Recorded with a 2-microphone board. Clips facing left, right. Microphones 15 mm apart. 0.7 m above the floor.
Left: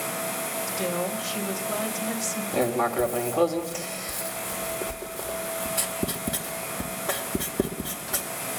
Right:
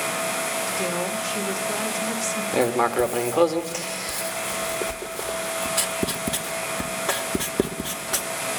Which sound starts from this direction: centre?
A woman speaking, at 0.7 s.